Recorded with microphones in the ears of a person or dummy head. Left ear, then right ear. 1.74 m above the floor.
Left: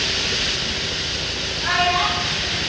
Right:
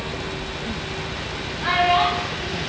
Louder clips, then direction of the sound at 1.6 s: Right 1 dB; 50° right (ahead or behind).